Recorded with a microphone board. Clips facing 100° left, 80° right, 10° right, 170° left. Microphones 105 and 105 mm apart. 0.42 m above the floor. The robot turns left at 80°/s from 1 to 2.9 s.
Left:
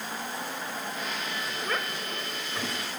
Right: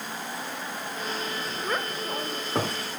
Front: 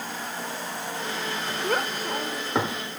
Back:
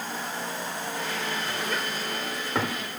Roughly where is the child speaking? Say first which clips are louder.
Right 4 dB, front 4 dB; ahead.